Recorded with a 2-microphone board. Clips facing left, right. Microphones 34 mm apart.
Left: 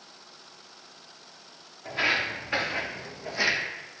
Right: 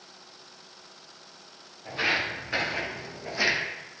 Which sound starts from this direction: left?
Footsteps, at 1.9 s.